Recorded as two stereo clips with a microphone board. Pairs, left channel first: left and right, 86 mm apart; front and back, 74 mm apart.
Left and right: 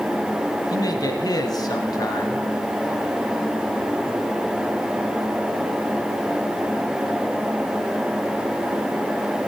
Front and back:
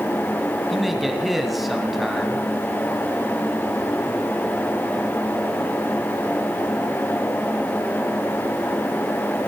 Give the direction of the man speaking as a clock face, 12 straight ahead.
9 o'clock.